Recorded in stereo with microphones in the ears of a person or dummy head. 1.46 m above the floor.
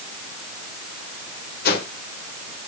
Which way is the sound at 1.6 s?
60° left (ahead or behind).